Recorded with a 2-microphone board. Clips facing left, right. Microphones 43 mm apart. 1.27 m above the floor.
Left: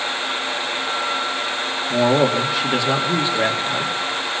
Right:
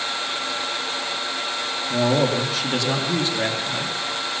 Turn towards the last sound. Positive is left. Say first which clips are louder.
# left 3 dB
turn(degrees=20)  # may be behind; listen again after turning